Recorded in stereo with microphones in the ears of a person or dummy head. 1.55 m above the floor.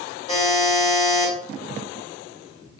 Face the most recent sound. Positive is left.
turn(degrees=45)  # may be behind; listen again after turning